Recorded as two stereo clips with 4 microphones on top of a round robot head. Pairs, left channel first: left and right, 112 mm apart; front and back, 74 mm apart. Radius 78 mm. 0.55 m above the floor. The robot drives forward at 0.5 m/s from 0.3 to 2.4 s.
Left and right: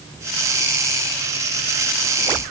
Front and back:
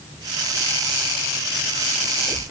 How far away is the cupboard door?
I don't hear a cupboard door.